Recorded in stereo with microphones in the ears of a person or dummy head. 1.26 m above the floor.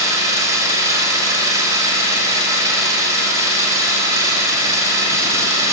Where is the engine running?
15° right (ahead or behind), 6 m.